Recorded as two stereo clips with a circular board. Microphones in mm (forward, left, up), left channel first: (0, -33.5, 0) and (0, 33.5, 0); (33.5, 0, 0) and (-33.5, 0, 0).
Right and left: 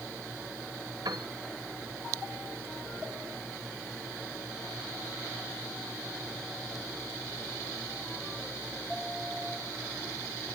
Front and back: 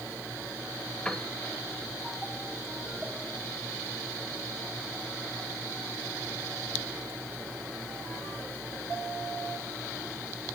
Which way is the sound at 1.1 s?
80° left.